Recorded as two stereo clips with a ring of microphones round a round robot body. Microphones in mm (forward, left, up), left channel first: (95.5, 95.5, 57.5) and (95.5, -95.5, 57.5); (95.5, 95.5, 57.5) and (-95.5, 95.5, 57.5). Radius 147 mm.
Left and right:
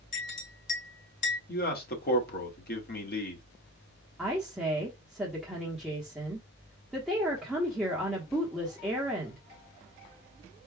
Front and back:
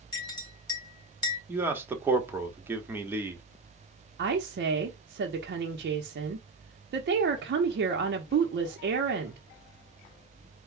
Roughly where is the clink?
Left.